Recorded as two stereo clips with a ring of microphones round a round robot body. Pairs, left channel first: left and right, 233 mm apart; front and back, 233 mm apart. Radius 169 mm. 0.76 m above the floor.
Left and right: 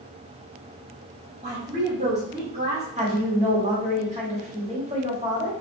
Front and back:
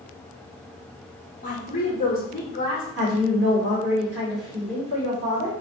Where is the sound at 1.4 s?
40° right, 0.7 m.